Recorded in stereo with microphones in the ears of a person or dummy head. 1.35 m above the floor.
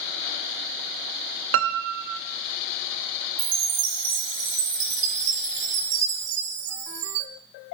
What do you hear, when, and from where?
1.5 s a piano: 55° right (ahead or behind), 0.7 m
3.4 s a chime: 40° right (ahead or behind), 0.9 m